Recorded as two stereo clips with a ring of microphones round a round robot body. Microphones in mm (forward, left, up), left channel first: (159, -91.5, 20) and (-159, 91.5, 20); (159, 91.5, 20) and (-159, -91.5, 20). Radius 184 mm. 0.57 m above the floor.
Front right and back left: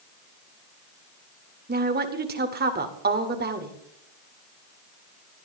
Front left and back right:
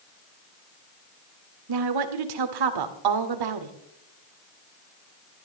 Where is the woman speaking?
150° right, 2.0 m.